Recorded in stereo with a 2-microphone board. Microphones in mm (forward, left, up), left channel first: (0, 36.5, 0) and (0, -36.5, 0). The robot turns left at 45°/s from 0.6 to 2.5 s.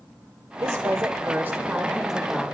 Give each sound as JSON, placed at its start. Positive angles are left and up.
{"t": 0.6, "sound": "a woman speaking", "azimuth_deg": -100, "distance_m": 1.1}